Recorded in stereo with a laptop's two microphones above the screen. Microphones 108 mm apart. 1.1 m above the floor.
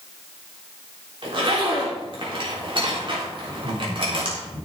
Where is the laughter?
45° right (ahead or behind), 3.5 m.